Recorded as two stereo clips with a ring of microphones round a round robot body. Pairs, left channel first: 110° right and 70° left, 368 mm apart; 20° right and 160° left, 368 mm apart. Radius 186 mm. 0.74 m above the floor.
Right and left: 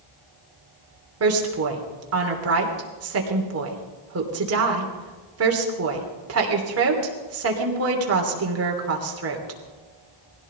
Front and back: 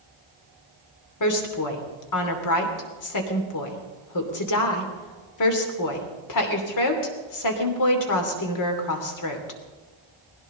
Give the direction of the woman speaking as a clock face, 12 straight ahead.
11 o'clock.